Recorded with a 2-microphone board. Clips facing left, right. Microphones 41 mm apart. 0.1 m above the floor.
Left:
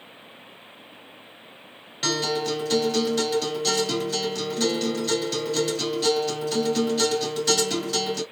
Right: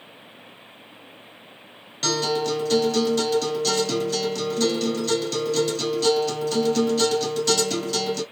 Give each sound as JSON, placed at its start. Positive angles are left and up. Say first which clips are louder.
{"t": 2.0, "sound": "a guitar", "louder": "right 2 dB", "side_deg": 10, "distance_m": 1.6}